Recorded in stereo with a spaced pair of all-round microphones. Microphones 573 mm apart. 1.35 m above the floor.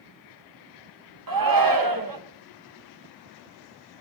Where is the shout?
35° right (ahead or behind), 1.4 m.